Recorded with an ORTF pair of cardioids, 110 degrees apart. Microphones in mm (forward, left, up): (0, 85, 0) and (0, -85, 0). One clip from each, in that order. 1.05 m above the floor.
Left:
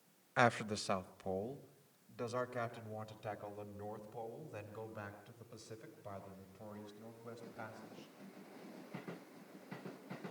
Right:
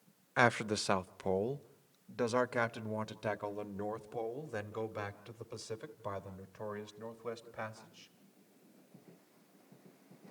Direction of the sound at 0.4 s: 10° right.